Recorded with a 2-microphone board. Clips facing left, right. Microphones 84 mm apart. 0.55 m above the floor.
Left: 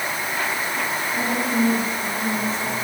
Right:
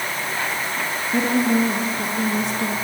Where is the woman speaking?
75° right (ahead or behind), 7.5 m; by 2.8 s 85° right, 7 m.